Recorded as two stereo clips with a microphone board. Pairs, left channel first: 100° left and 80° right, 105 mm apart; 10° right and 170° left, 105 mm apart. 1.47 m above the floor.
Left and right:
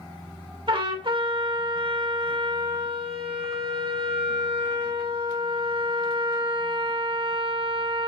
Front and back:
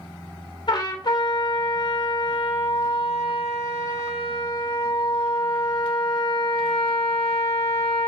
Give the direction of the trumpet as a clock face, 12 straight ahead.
2 o'clock.